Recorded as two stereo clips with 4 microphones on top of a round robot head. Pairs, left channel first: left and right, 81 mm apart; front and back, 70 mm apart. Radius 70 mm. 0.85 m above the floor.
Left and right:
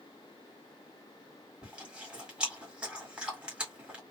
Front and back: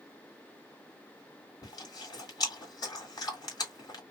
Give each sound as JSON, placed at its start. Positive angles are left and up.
{"t": 1.6, "sound": "chewing", "azimuth_deg": -10, "distance_m": 1.9}